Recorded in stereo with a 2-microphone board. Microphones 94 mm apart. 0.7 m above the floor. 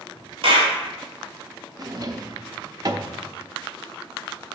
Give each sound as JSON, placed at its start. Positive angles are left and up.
{"t": 0.4, "sound": "a clap", "side_deg": -65, "distance_m": 1.6}
{"t": 1.8, "sound": "a drawer", "side_deg": -40, "distance_m": 0.6}